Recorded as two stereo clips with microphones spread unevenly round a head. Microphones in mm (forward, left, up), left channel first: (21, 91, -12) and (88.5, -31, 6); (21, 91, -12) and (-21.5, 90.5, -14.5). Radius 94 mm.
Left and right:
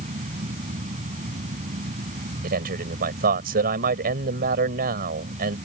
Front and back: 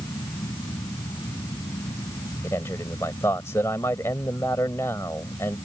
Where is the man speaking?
55° right.